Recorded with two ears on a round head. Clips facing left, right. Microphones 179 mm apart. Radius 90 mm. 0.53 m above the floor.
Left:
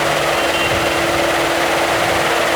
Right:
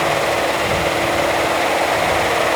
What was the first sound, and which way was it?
Only background noise.